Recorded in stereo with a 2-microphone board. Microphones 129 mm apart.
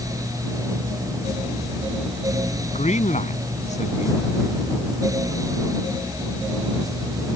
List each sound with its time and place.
2.8 s a man speaking: 65° left (ahead or behind)